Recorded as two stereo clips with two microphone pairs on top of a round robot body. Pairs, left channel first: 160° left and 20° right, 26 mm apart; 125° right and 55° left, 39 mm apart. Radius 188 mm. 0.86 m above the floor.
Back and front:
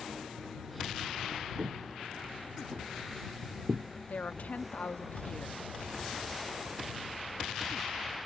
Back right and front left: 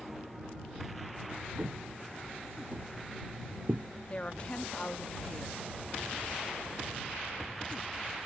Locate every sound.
1.6 s footsteps: 5° left; by 3.9 s 15° left
4.1 s a woman speaking: 175° left